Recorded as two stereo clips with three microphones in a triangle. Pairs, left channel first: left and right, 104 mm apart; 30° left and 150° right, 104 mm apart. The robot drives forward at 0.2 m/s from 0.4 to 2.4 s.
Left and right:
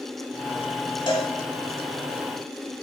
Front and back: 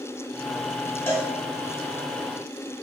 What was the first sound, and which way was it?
A cowbell, 90° left.